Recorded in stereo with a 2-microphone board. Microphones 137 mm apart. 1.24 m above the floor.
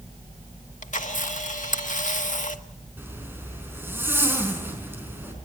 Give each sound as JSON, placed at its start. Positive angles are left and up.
{"t": 0.8, "sound": "a camera shutter", "side_deg": 65, "distance_m": 1.3}
{"t": 3.0, "sound": "a zipper", "side_deg": -15, "distance_m": 4.5}